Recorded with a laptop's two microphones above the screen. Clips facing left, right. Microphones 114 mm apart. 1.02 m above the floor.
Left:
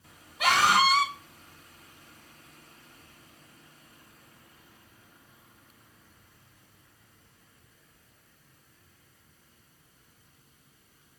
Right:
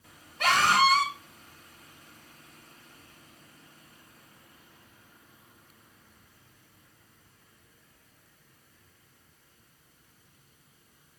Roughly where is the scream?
Centre.